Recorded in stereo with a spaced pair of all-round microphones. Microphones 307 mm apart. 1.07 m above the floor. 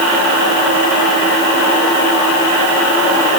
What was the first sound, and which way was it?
Only background noise.